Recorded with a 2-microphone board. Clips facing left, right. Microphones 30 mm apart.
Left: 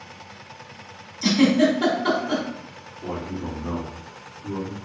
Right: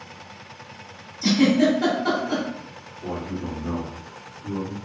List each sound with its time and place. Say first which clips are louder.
1.2 s a giggle: even; 70° left (ahead or behind), 1.6 m
3.0 s a man speaking: even; 50° left (ahead or behind), 1.6 m